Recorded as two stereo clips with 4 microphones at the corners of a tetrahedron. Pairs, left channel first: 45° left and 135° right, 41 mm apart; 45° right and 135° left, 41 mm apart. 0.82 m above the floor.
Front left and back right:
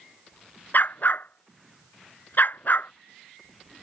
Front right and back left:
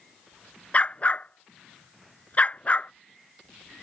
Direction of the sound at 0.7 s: 10° left.